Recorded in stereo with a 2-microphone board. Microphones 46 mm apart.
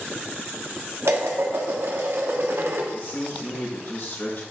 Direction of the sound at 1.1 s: 75° right (ahead or behind).